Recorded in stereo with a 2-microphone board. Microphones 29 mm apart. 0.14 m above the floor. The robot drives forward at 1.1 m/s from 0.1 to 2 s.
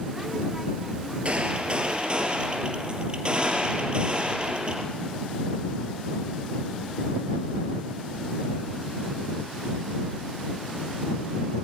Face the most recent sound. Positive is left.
turn(degrees=-35)  # may be behind; listen again after turning